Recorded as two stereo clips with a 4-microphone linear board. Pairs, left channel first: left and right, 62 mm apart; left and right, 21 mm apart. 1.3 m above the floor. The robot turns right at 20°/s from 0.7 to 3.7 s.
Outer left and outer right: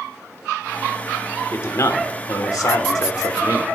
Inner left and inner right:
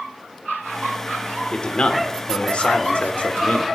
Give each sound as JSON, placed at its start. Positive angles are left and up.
{"t": 1.5, "sound": "a man speaking", "azimuth_deg": 50, "distance_m": 1.2}